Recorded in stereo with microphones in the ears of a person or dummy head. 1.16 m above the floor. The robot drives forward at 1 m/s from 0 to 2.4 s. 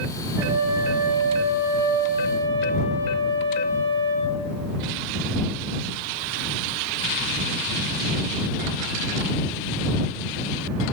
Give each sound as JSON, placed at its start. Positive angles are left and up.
{"t": 0.4, "sound": "a flute", "side_deg": -20, "distance_m": 9.5}